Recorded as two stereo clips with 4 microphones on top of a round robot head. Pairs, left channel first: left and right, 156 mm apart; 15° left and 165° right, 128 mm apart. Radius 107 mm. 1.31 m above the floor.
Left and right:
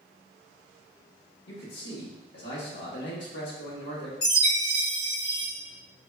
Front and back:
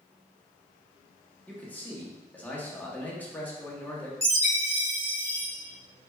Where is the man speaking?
90° left, 1.2 m.